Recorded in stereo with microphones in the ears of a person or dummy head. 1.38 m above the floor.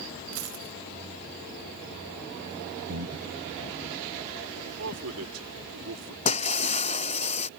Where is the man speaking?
75° right (ahead or behind).